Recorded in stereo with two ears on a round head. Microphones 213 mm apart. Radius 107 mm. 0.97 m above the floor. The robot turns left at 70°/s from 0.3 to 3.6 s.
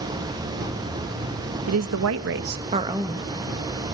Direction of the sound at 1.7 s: 75° right.